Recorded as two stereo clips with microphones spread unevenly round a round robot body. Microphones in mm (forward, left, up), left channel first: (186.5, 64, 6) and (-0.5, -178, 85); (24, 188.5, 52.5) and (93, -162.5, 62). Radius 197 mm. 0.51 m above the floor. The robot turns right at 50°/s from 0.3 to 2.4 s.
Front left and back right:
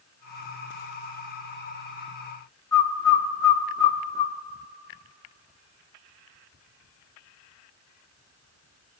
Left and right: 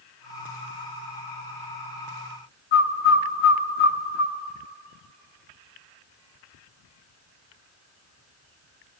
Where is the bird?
75° left, 0.8 m.